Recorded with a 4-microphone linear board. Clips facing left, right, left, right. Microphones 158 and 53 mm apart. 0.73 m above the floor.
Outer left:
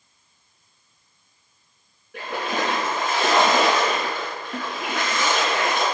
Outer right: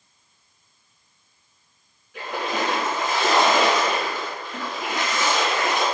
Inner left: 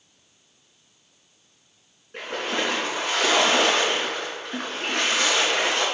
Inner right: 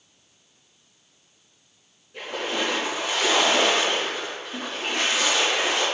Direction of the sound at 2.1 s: 55° left (ahead or behind).